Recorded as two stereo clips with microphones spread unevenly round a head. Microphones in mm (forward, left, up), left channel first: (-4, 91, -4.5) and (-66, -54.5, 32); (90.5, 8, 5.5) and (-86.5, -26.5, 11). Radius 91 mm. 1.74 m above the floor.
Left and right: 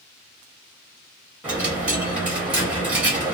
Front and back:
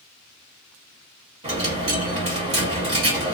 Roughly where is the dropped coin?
Behind.